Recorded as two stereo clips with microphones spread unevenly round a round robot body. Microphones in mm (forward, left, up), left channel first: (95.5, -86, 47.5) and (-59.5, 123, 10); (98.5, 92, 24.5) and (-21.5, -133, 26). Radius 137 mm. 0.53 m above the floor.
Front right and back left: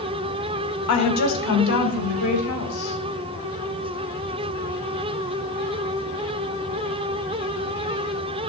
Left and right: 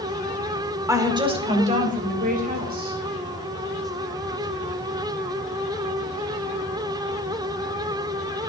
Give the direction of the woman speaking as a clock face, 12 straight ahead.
1 o'clock.